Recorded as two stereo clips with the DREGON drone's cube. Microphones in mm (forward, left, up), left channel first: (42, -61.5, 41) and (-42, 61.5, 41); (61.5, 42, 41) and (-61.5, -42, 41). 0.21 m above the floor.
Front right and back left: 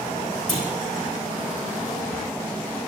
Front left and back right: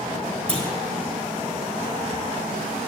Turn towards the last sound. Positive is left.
turn(degrees=-95)